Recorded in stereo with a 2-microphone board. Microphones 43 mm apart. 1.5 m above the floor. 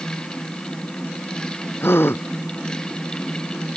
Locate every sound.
1.8 s a gasp: 60° left (ahead or behind)